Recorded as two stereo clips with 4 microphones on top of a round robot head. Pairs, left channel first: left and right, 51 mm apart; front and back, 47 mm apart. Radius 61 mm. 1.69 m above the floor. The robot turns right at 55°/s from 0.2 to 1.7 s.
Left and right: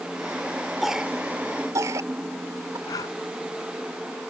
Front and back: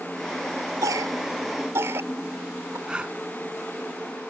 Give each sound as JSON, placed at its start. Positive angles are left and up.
{"t": 0.8, "sound": "a cough", "azimuth_deg": 180}
{"t": 2.9, "sound": "breathing", "azimuth_deg": 110}